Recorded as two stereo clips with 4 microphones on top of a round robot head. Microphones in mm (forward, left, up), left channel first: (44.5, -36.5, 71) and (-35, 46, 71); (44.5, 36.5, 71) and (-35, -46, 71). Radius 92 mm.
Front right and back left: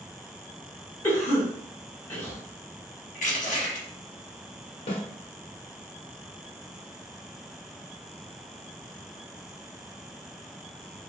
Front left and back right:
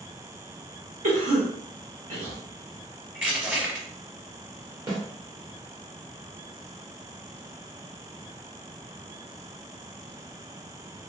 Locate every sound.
1.0 s a cough: 115° right, 1.1 m
3.1 s crushing: 55° right, 1.0 m
4.9 s a snare drum: 80° right, 1.1 m